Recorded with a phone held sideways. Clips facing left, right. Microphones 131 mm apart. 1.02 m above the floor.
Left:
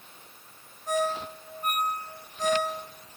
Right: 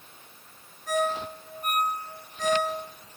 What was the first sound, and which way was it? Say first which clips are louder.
A ringtone: right 1 dB; 25° left (ahead or behind).